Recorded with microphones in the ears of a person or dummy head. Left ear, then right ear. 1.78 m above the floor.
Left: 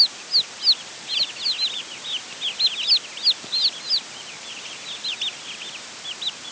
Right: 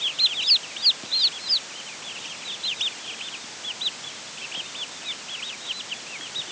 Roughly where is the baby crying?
No baby crying in this recording.